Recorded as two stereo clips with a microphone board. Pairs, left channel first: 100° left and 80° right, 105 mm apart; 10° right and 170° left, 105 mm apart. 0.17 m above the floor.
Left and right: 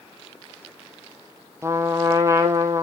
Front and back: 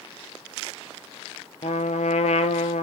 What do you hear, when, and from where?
1.6 s a trumpet: 15° right, 0.7 m